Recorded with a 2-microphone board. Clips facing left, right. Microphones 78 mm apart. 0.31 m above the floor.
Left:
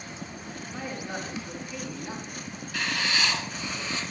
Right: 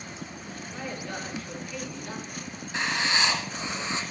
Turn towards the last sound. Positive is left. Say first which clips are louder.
# right 2 dB
turn(degrees=-25)  # may be behind; listen again after turning